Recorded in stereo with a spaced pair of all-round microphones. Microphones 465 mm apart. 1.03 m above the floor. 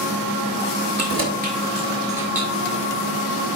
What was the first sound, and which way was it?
Keys jangling, 35° right (ahead or behind).